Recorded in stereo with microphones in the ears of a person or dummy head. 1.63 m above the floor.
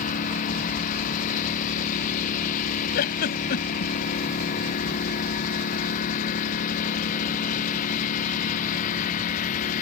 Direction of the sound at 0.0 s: 45° left (ahead or behind).